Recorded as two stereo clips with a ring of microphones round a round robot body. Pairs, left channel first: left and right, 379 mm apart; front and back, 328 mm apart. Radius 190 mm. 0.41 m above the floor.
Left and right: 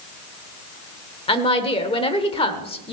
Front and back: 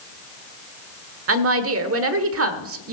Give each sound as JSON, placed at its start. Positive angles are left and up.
{"t": 1.3, "sound": "a woman speaking", "azimuth_deg": 160, "distance_m": 1.2}